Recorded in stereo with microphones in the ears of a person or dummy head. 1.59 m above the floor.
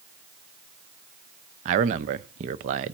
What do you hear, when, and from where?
1.6 s a man speaking: 35° right (ahead or behind), 0.5 m